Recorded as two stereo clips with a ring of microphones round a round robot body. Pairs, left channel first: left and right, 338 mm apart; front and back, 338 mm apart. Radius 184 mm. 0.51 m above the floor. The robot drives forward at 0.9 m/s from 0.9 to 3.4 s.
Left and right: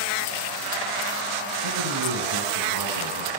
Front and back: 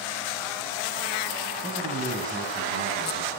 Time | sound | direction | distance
1.6 | a man speaking | 105° right | 4 m